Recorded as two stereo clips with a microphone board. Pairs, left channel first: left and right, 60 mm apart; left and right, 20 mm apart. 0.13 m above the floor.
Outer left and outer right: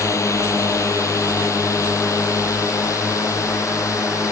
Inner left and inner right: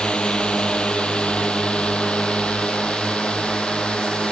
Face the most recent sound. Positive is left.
turn(degrees=60)  # may be behind; listen again after turning